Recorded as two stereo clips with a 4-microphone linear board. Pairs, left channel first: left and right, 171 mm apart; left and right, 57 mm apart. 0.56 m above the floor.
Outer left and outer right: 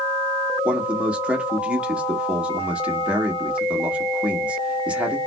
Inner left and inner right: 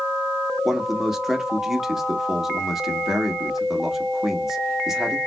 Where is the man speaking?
5° right (ahead or behind), 1.2 m.